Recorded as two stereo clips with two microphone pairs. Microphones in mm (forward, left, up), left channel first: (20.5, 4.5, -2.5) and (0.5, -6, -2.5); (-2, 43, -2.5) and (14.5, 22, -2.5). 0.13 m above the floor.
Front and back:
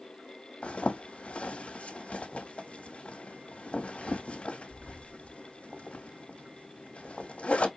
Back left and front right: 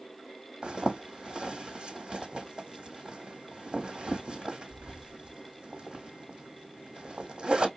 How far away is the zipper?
About 1.0 m.